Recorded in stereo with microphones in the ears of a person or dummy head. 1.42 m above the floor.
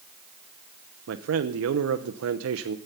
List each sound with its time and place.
1.1 s a man speaking: 85° right, 0.8 m